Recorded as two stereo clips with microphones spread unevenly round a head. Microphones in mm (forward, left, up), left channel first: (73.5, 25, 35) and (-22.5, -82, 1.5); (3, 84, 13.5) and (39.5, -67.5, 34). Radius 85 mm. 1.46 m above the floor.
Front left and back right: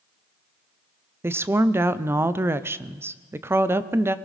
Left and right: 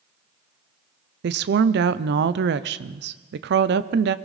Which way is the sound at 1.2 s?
60° right.